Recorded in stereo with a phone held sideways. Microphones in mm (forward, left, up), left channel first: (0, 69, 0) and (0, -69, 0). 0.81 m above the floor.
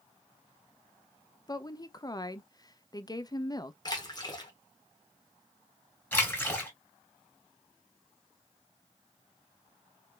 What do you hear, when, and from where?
1.5 s a woman speaking: 30° left (ahead or behind), 0.5 m
3.9 s a splash: 30° left (ahead or behind), 1.3 m
6.1 s a splash: 15° left (ahead or behind), 2.5 m